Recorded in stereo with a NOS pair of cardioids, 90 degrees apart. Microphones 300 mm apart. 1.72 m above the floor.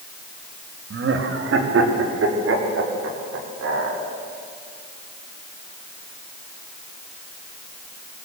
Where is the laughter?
45° right, 3 m; by 4.0 s 50° right, 6.5 m.